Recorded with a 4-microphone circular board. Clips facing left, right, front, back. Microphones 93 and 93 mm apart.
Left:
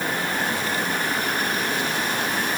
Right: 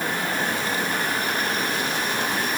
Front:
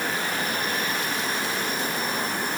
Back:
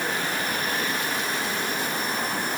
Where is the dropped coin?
I don't hear a dropped coin.